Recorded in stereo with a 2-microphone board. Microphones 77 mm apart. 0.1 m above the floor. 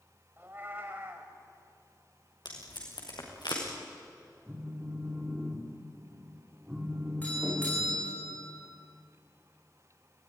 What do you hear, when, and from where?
0.4 s a cat meowing: 30° right (ahead or behind), 4.5 m
2.5 s tape being pulled: 75° left (ahead or behind), 5.5 m
4.5 s a phone buzzing: 15° right (ahead or behind), 4 m
7.2 s a doorbell: 20° left (ahead or behind), 9 m